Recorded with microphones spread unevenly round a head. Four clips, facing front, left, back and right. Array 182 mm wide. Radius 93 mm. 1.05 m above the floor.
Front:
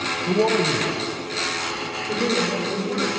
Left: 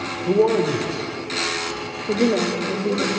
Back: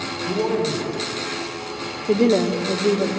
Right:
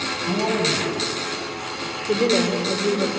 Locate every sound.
0.3 s a man speaking: 75° left, 3.5 m; by 3.1 s 45° left, 3 m
2.1 s a woman speaking: 160° left, 2.5 m